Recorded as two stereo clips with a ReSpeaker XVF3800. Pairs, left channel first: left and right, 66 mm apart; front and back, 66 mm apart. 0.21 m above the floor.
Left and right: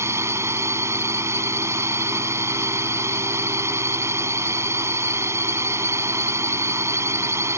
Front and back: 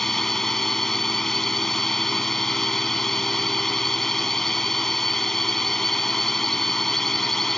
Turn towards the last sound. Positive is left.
turn(degrees=-85)